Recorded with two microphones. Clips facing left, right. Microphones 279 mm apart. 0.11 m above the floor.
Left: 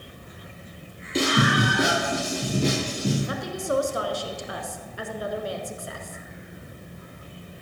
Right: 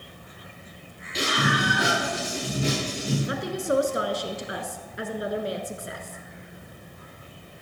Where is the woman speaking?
20° right (ahead or behind), 1.1 m.